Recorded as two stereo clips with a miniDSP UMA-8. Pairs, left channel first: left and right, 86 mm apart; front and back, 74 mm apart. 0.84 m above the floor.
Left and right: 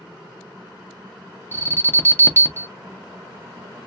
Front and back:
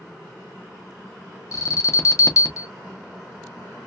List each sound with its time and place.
1.5 s an alarm: 30° left, 1.0 m